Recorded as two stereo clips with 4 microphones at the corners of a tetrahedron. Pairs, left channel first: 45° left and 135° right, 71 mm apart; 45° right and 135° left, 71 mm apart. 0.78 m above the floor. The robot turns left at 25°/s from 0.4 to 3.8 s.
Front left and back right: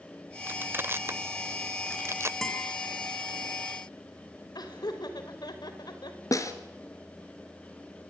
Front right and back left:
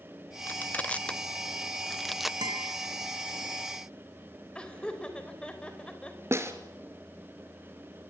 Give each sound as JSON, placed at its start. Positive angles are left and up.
{"t": 0.5, "sound": "crushing", "azimuth_deg": -90, "distance_m": 0.6}
{"t": 2.4, "sound": "a guitar", "azimuth_deg": 130, "distance_m": 4.5}
{"t": 4.5, "sound": "laughter", "azimuth_deg": 30, "distance_m": 4.5}
{"t": 6.3, "sound": "a snare drum", "azimuth_deg": 85, "distance_m": 2.5}